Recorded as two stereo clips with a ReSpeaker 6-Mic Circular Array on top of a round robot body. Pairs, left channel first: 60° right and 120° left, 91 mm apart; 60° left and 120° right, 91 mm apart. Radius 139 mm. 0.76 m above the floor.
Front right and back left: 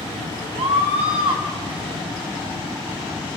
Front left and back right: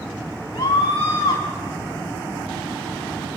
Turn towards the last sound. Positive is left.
turn(degrees=110)